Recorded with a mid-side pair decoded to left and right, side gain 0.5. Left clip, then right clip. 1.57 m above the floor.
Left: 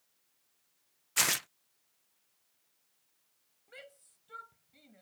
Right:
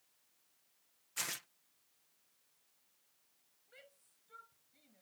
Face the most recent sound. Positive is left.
turn(degrees=55)